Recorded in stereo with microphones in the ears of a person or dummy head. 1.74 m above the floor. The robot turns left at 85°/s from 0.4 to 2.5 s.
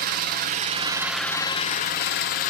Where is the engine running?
115° right, 1.0 m; by 2.5 s 65° left, 1.0 m.